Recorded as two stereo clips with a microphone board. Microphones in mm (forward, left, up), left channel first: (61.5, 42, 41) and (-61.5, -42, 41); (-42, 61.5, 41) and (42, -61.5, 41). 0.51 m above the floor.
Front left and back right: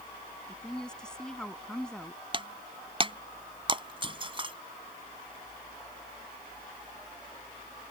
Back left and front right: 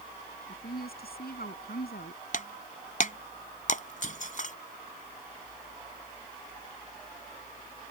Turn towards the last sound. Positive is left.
turn(degrees=160)